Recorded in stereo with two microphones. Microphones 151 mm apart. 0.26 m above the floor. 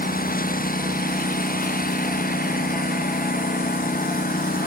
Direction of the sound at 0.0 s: 70° left (ahead or behind).